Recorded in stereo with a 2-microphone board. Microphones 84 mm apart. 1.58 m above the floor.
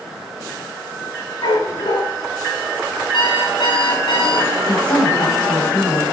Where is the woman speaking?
70° left (ahead or behind), 7 m.